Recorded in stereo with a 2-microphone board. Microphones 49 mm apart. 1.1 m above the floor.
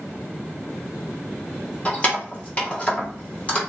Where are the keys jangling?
30° left (ahead or behind), 1.1 m.